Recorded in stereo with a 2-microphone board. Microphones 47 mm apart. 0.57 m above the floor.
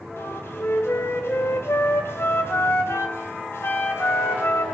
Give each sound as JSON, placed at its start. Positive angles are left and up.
{"t": 0.2, "sound": "a flute", "side_deg": 70, "distance_m": 3.0}